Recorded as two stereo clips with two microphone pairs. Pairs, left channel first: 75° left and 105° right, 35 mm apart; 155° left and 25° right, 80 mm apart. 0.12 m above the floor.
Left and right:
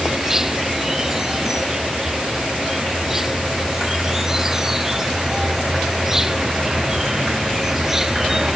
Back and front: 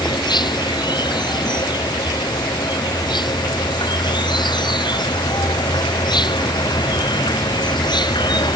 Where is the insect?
175° left.